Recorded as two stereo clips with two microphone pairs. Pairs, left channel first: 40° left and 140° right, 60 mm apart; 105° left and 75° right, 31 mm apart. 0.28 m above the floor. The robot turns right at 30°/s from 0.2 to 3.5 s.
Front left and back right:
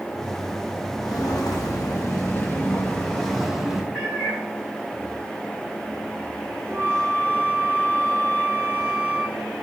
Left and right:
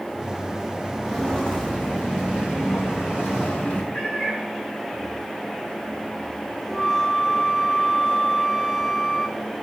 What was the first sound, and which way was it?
Footsteps, 30° left.